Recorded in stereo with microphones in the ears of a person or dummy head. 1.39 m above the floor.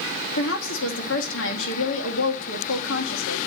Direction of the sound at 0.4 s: 70° left (ahead or behind).